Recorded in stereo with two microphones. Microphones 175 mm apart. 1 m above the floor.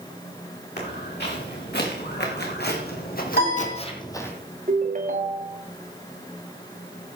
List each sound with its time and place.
0.8 s footsteps: 70° left (ahead or behind), 5 m; by 4.3 s 10° left (ahead or behind), 1.7 m
3.3 s a piano: 75° left (ahead or behind), 6.5 m
4.7 s a ringtone: 50° right (ahead or behind), 1.4 m